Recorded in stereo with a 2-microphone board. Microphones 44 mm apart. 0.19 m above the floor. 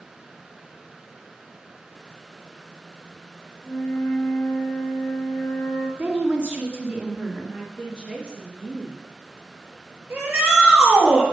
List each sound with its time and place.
3.6 s a flute: 45° left (ahead or behind), 3 m
6.0 s a woman speaking: 45° right (ahead or behind), 2 m
7.5 s a woman speaking: 20° right (ahead or behind), 3.5 m
10.1 s a shout: 45° right (ahead or behind), 5 m